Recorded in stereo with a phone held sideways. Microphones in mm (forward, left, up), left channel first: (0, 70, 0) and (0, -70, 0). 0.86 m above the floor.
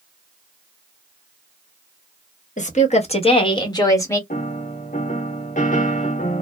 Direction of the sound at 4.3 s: 60° left (ahead or behind).